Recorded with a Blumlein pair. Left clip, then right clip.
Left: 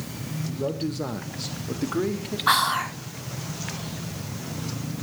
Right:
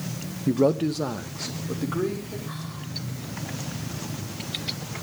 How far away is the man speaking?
About 1.1 m.